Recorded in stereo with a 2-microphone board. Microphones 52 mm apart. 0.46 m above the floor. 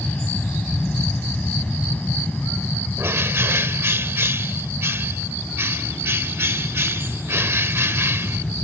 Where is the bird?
55° right (ahead or behind).